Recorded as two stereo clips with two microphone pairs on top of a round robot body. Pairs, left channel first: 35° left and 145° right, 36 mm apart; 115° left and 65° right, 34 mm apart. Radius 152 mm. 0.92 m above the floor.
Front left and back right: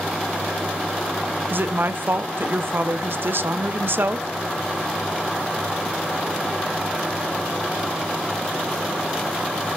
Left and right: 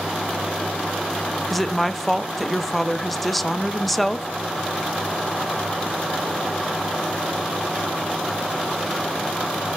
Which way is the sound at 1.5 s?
165° right.